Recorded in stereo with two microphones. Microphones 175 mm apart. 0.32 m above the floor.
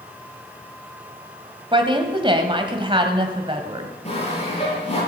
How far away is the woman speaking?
About 2 m.